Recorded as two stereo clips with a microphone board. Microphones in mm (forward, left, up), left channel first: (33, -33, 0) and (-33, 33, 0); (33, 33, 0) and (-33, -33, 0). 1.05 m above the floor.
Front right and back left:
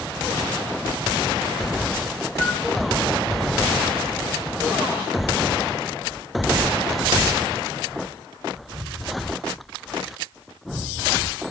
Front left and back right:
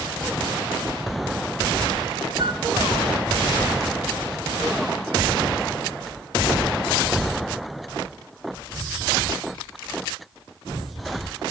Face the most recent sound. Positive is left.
turn(degrees=-120)